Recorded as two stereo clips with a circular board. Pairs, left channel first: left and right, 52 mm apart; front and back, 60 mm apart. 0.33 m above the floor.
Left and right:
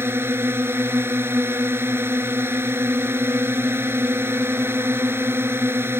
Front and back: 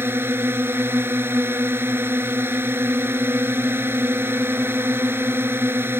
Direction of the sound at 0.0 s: 130° right.